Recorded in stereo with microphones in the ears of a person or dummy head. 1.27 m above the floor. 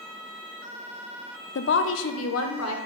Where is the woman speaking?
55° left (ahead or behind), 0.5 m; by 2.8 s 80° left, 1.6 m.